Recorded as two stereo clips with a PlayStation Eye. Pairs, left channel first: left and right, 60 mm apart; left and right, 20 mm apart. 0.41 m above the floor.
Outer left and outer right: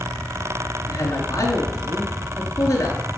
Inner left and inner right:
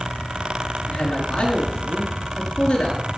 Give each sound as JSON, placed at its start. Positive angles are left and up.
{"t": 0.9, "sound": "a man speaking", "side_deg": 50, "distance_m": 4.0}